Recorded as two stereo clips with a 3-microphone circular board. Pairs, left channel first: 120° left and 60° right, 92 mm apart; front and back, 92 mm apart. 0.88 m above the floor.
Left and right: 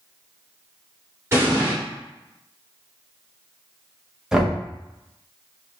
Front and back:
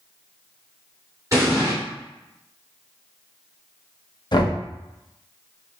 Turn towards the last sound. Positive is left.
turn(degrees=25)